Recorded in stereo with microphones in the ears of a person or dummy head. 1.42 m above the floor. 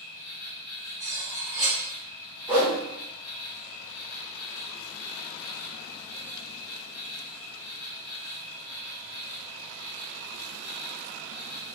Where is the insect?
60° left (ahead or behind), 1.0 m.